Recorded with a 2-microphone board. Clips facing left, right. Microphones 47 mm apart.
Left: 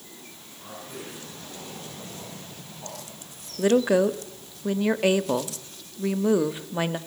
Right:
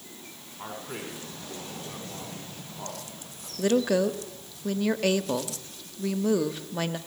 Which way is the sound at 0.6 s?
85° right.